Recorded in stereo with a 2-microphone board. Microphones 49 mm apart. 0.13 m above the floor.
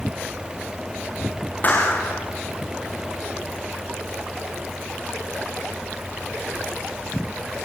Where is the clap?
35° left (ahead or behind), 8.5 m.